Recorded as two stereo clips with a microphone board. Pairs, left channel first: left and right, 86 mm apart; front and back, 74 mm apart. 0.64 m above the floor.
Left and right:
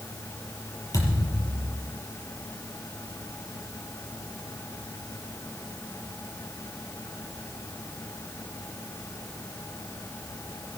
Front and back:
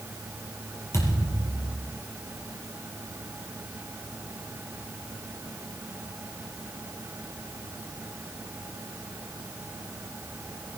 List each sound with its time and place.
0.9 s a thud: 45° left, 5 m